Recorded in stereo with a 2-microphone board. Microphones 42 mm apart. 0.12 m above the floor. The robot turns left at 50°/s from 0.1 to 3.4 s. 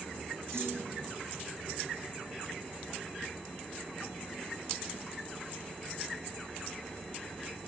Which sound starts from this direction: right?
A clunk, at 0.5 s.